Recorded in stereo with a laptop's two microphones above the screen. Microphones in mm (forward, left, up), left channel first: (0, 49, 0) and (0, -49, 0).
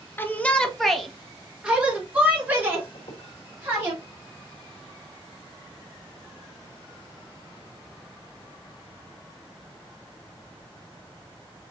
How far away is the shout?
About 0.7 m.